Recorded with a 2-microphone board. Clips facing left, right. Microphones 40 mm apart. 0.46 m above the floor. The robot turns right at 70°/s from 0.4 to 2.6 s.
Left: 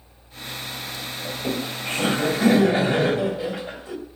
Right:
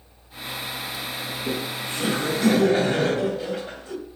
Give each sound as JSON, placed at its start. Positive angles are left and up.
{"t": 1.2, "sound": "laughter", "azimuth_deg": 80, "distance_m": 3.5}